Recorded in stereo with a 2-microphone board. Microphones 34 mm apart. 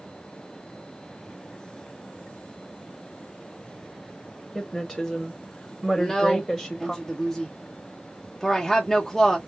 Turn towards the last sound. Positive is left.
turn(degrees=0)  # may be behind; listen again after turning